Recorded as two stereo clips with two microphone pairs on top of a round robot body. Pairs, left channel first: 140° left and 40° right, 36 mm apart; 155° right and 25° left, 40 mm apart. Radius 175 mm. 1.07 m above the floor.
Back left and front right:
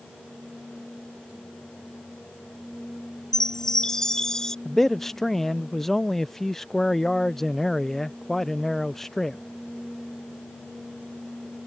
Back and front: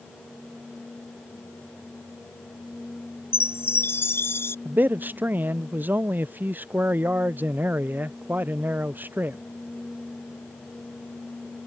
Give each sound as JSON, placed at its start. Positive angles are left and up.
{"t": 3.3, "sound": "a chime", "azimuth_deg": -145}
{"t": 4.7, "sound": "a man speaking", "azimuth_deg": 65}